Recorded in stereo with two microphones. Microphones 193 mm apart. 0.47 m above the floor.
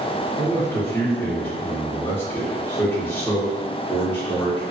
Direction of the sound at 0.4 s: 10° left (ahead or behind).